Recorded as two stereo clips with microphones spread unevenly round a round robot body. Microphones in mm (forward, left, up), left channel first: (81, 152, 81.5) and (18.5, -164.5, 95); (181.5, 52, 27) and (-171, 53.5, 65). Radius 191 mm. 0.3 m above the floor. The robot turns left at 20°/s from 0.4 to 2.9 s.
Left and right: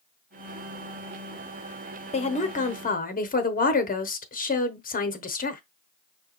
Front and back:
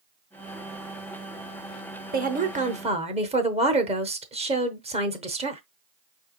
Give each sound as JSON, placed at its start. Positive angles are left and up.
{"t": 2.1, "sound": "a woman speaking", "azimuth_deg": 125, "distance_m": 1.0}